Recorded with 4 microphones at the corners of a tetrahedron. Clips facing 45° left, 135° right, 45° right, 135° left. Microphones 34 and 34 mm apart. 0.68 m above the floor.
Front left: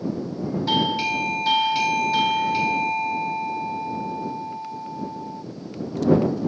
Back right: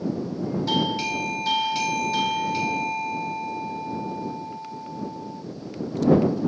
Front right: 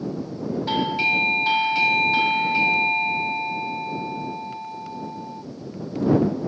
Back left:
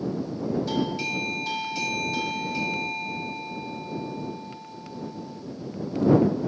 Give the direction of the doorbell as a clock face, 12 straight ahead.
1 o'clock.